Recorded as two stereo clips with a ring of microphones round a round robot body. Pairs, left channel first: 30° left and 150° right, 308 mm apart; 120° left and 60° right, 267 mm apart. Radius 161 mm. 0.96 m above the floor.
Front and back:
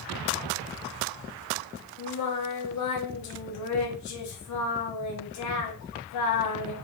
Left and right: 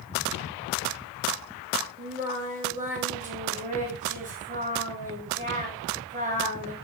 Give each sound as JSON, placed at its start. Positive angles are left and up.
{"t": 2.0, "sound": "singing", "azimuth_deg": 0, "distance_m": 0.9}